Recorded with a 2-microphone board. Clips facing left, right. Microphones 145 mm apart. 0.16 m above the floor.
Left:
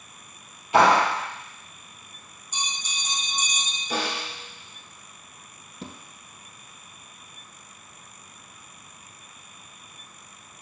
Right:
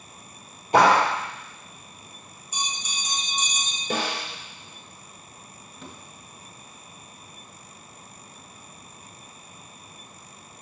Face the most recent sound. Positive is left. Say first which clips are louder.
# left 4 dB
turn(degrees=35)  # may be behind; listen again after turning